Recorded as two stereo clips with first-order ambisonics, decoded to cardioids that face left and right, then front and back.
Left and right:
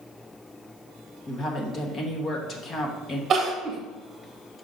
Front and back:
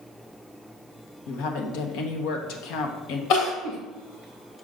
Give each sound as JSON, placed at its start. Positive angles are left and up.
{"t": 1.3, "sound": "a woman speaking", "azimuth_deg": 25, "distance_m": 1.2}
{"t": 3.3, "sound": "crying", "azimuth_deg": -25, "distance_m": 1.5}